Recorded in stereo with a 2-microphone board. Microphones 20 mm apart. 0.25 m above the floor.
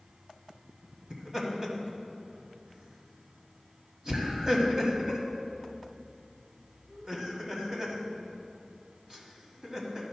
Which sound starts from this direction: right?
Laughter, at 1.1 s.